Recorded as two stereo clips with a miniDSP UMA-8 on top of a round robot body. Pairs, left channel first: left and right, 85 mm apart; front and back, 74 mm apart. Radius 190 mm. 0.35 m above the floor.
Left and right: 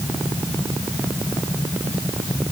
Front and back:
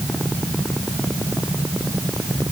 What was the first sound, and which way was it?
Only background noise.